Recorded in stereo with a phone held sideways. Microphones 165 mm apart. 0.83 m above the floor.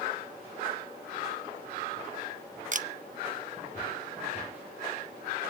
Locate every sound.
2.7 s a camera shutter: 50° right (ahead or behind), 0.6 m